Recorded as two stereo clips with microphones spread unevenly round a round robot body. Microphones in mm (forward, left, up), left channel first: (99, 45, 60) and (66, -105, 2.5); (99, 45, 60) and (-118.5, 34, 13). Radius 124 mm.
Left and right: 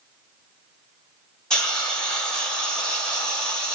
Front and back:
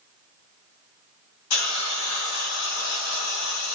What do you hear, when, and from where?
1.5 s a hiss: 10° right, 1.2 m